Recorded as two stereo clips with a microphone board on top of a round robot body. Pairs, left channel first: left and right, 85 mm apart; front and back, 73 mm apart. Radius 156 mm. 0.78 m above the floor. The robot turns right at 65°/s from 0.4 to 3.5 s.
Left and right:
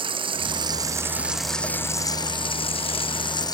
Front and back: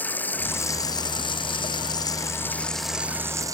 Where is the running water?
70° right; by 3.5 s 135° left.